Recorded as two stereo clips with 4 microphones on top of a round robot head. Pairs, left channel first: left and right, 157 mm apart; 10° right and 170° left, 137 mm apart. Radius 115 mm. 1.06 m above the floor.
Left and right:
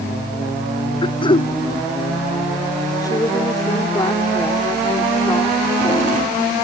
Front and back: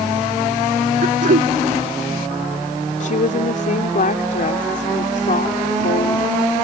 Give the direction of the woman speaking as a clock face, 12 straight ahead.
11 o'clock.